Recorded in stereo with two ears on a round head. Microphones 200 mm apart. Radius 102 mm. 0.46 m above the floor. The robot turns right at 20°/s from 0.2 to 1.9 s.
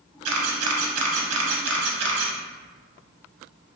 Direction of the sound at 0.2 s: 70° right (ahead or behind).